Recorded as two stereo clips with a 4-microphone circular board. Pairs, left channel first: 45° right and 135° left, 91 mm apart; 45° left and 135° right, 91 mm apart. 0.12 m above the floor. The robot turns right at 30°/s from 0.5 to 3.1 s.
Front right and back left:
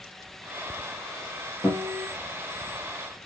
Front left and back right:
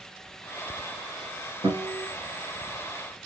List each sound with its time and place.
1.6 s a guitar: 135° right, 3.5 m; by 2.1 s 120° right, 3.5 m